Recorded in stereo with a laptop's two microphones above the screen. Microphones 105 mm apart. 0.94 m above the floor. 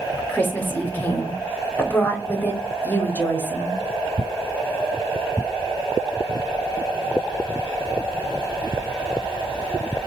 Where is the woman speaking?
15° left (ahead or behind), 0.9 m.